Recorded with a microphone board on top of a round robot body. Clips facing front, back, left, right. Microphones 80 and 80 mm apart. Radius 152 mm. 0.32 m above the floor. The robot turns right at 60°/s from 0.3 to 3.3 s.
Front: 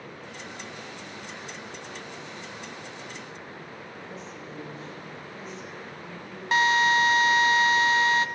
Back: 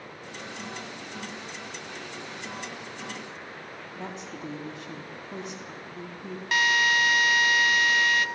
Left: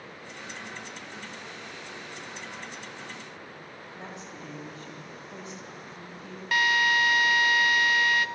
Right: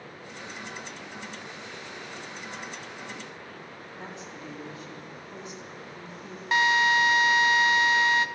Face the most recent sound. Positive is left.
turn(degrees=-40)